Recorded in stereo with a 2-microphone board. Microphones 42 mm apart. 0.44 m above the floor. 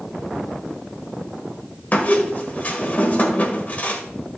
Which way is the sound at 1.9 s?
40° left (ahead or behind).